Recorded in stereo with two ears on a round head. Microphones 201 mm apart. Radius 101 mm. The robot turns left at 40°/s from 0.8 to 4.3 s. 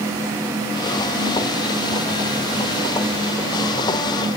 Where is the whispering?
No whispering in this recording.